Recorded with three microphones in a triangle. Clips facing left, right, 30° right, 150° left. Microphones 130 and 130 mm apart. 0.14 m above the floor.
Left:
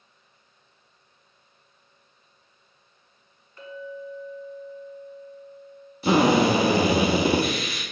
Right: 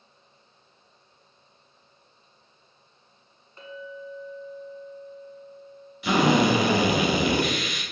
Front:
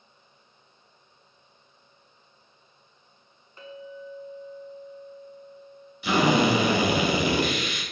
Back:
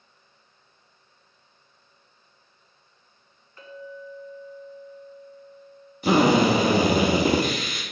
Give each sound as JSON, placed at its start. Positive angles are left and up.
{"t": 3.6, "sound": "a clink", "azimuth_deg": -65, "distance_m": 1.1}
{"t": 6.0, "sound": "a drill", "azimuth_deg": 125, "distance_m": 0.9}